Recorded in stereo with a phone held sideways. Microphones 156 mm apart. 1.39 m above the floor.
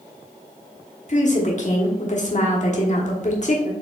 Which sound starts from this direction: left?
A woman speaking, at 1.1 s.